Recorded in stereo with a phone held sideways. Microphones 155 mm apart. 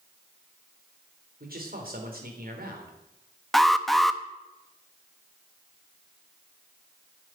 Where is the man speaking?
75° right (ahead or behind), 3.5 m.